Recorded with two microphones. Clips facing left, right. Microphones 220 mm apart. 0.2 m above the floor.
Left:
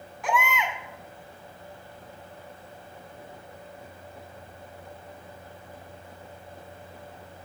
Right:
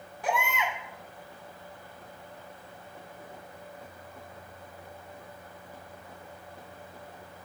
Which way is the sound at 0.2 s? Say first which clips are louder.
Left 2 dB; 40° right (ahead or behind).